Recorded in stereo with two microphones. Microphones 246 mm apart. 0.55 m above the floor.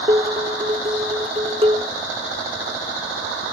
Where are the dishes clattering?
25° right (ahead or behind), 0.7 m.